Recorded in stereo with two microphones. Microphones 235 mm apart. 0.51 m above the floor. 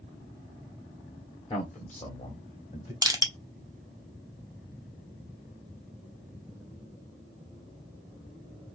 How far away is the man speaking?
About 0.9 m.